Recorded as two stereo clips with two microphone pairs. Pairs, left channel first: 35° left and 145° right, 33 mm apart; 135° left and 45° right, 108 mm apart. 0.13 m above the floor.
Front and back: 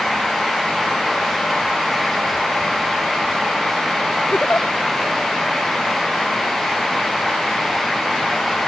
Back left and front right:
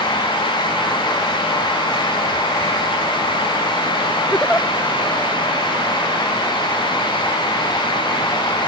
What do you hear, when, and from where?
4.3 s a giggle: 55° left